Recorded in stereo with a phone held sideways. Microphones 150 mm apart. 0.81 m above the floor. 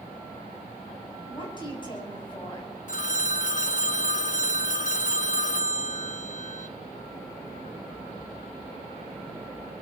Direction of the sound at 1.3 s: 30° left (ahead or behind).